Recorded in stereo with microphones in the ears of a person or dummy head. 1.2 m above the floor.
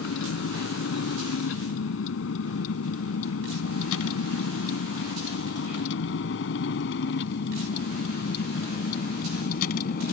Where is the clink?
No clink in this recording.